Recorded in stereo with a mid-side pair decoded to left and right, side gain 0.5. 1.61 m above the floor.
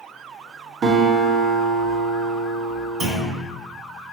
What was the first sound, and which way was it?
A guitar, 55° right.